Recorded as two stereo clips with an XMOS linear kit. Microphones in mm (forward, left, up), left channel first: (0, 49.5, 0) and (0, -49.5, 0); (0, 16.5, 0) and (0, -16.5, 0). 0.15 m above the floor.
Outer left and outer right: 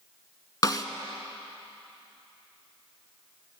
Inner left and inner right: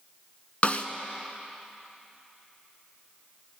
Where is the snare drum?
40° left (ahead or behind), 1.0 m.